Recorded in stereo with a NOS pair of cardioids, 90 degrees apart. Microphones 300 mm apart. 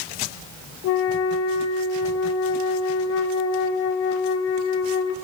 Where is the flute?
55° left, 0.5 m.